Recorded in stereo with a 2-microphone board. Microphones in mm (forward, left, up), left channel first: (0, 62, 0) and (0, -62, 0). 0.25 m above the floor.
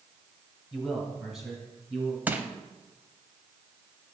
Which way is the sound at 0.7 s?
Centre (ahead or behind).